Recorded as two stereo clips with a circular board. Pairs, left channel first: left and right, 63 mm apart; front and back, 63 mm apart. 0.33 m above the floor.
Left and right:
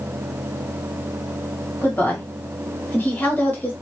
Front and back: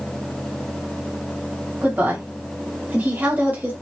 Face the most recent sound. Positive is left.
turn(degrees=130)